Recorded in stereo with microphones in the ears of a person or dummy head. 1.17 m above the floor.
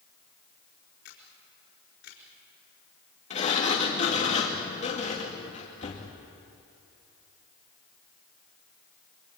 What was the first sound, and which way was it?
A camera shutter, 55° left (ahead or behind).